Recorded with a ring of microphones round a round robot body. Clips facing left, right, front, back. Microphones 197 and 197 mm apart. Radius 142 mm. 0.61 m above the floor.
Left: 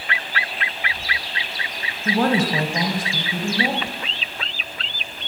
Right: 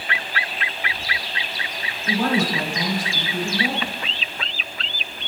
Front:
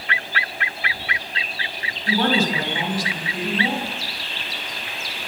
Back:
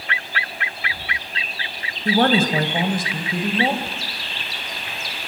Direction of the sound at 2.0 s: 145° left.